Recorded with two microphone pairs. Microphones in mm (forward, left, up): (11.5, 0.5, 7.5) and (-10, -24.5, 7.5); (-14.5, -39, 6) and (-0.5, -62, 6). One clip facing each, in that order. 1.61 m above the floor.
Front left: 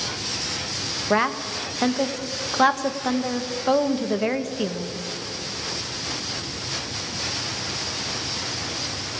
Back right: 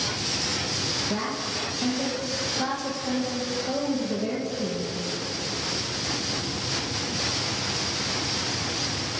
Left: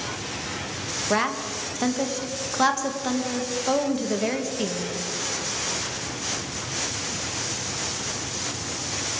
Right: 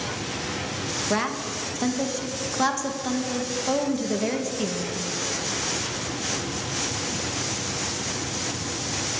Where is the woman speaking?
40° left, 2.0 m.